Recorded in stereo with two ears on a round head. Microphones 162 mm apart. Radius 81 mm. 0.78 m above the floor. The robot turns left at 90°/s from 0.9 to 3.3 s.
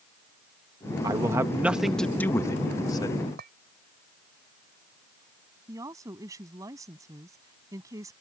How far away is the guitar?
No guitar in this recording.